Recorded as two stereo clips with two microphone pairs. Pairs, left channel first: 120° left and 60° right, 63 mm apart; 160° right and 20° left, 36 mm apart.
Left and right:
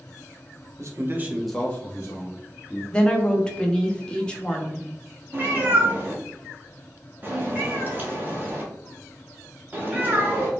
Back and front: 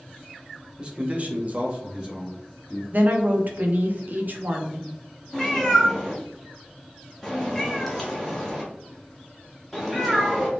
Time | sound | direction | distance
0.8 | a man speaking | 45° right | 0.8 m
2.9 | a woman speaking | 45° left | 0.6 m
5.3 | a cat meowing | 75° right | 0.8 m